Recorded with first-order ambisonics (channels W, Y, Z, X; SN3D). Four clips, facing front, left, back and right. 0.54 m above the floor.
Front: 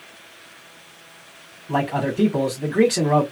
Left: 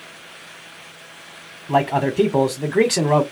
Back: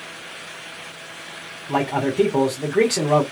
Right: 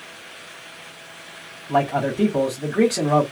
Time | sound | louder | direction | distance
1.7 | a man speaking | left 2 dB, back 1 dB | 100° left | 1.2 m